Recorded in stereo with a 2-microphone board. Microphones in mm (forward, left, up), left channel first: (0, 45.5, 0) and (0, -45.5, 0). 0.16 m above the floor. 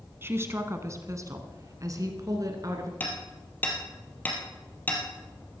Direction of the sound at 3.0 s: 20° left (ahead or behind).